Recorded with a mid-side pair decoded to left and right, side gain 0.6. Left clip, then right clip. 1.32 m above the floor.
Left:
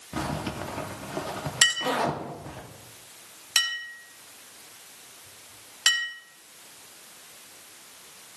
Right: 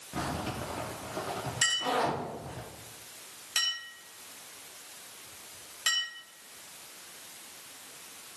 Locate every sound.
0.1 s a zipper: 35° left, 1.5 m
1.6 s a clink: 45° left, 2.5 m